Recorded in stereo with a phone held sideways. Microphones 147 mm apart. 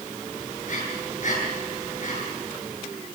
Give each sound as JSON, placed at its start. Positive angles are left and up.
{"t": 0.7, "sound": "breathing", "side_deg": 55, "distance_m": 8.0}